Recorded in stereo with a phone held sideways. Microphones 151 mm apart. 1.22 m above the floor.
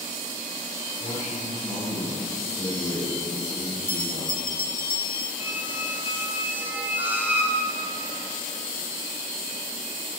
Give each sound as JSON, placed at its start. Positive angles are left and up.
{"t": 1.0, "sound": "a man speaking", "side_deg": 10, "distance_m": 5.5}
{"t": 3.9, "sound": "a bell", "side_deg": 70, "distance_m": 1.5}
{"t": 5.4, "sound": "a squeak", "side_deg": -10, "distance_m": 1.7}